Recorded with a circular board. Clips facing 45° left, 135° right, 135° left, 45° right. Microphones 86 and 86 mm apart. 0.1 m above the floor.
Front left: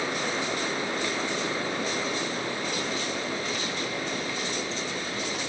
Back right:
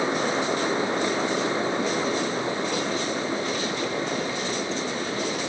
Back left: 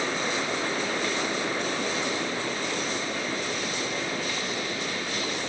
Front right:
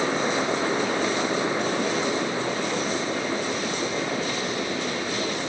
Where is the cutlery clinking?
I don't hear cutlery clinking.